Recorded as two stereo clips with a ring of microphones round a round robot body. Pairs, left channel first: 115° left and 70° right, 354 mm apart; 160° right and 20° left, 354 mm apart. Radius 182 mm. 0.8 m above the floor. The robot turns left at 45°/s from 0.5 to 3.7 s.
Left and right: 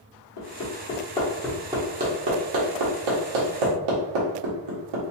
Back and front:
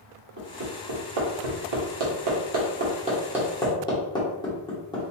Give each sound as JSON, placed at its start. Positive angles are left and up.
{"t": 0.4, "sound": "hammering", "azimuth_deg": 65, "distance_m": 1.5}